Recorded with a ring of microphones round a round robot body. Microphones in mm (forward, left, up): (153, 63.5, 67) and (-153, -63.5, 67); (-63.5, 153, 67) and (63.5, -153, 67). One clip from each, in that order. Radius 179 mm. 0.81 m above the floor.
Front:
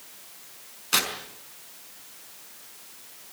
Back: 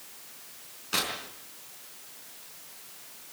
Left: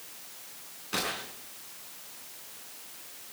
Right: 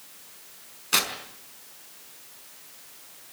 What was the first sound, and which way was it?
Tearing paper, 40° right.